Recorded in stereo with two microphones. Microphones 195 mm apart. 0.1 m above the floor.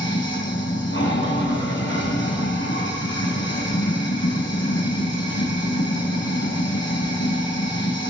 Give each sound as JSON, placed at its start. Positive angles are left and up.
{"t": 0.0, "sound": "running water", "side_deg": 75, "distance_m": 3.5}